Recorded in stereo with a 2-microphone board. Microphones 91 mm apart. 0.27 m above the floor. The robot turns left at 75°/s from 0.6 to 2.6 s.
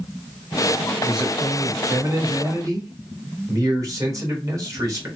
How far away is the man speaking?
About 1.7 m.